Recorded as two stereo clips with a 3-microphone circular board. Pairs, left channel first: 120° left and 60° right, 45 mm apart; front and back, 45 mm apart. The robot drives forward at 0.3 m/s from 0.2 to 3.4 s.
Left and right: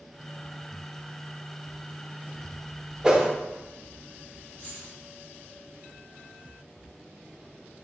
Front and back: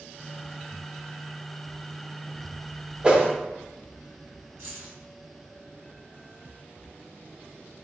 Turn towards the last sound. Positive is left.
turn(degrees=170)